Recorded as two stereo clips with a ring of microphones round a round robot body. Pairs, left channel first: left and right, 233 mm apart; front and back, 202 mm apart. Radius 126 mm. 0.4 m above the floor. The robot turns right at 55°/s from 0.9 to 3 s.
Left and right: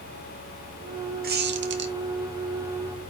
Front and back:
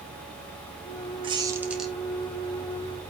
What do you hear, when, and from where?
1.2 s a squeak: 125° right, 1.0 m; by 1.9 s 85° right, 1.0 m